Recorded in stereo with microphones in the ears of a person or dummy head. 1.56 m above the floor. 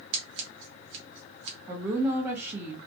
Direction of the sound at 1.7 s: 10° right (ahead or behind).